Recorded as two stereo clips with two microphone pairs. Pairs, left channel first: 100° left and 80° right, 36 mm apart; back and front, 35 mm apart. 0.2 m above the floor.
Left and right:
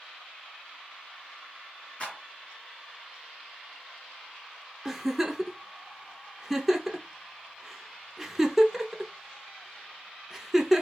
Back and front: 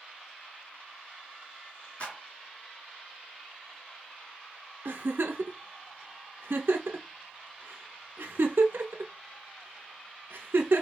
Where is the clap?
140° left, 1.9 m.